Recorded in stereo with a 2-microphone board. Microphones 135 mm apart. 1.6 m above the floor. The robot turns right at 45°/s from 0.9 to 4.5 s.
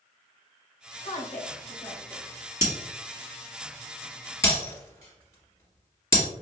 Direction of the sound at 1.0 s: 75° left (ahead or behind).